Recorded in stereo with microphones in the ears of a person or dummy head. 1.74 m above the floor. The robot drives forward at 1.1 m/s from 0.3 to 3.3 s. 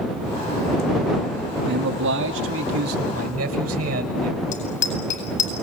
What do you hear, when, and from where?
1.7 s a man speaking: 75° right (ahead or behind), 1.6 m; by 4.4 s 45° right (ahead or behind), 2 m
4.5 s a bicycle bell: 45° left (ahead or behind), 9 m